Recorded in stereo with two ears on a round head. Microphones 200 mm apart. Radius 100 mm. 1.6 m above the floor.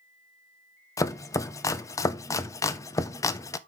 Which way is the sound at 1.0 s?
15° left (ahead or behind).